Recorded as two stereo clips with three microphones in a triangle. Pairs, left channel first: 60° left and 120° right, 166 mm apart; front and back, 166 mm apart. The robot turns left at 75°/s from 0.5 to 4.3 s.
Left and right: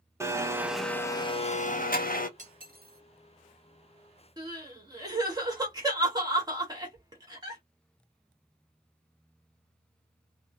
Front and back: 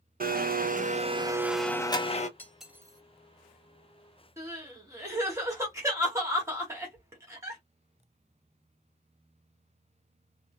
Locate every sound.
0.2 s a blender: 170° left, 0.5 m; by 2.3 s 35° left, 0.5 m
2.4 s cutlery clinking: 75° right, 0.6 m; by 3.0 s 125° right, 0.6 m
4.4 s crying: 135° right, 1.4 m